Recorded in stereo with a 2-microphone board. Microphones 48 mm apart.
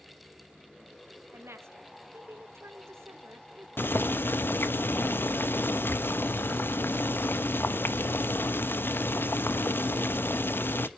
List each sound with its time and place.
1.3 s a woman speaking: 65° right (ahead or behind), 1.7 m
3.8 s boiling: 50° left (ahead or behind), 0.9 m